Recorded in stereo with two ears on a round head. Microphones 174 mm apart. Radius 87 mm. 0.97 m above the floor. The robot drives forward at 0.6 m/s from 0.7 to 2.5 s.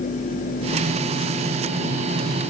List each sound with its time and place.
Only background noise.